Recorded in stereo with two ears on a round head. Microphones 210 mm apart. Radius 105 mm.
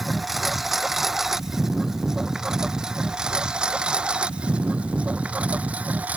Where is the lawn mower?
Centre (ahead or behind); by 6.2 s 5° right (ahead or behind).